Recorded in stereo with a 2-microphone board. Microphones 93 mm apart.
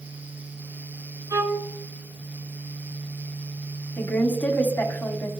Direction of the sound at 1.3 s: 40° right (ahead or behind).